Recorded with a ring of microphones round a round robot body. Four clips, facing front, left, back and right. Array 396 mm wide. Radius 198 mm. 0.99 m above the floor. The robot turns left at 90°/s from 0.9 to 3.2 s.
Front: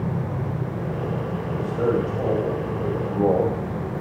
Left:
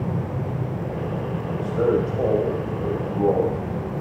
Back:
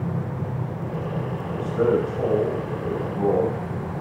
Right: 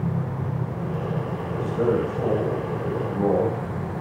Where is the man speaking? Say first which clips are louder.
Left 2 dB, back 2 dB; 150° left, 1.5 m; by 4.0 s straight ahead, 1.5 m.